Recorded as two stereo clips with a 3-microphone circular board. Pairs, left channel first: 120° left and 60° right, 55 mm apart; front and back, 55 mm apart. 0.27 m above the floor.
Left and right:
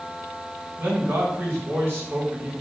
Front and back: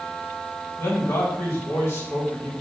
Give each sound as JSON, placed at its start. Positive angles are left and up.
{"t": 0.8, "sound": "a man speaking", "azimuth_deg": -25, "distance_m": 3.5}